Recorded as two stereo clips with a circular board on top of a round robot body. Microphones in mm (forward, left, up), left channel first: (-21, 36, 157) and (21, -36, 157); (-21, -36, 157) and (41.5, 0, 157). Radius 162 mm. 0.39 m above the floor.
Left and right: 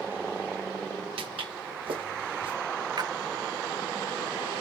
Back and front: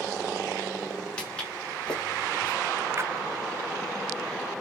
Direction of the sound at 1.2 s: 75° right.